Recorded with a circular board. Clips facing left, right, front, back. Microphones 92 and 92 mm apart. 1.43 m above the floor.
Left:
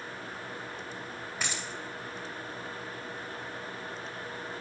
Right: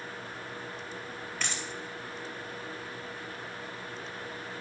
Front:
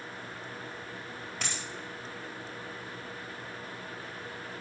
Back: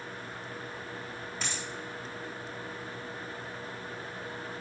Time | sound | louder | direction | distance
1.4 | a dropped coin | even, even | 10° left | 2 m